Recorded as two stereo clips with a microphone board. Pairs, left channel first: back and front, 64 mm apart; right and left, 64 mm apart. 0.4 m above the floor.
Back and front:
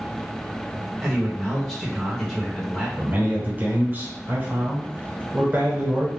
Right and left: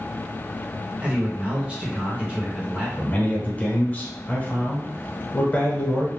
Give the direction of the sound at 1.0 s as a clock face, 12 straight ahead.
9 o'clock.